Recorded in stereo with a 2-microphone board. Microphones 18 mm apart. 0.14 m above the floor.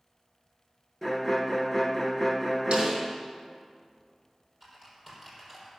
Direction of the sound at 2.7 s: 75° right (ahead or behind).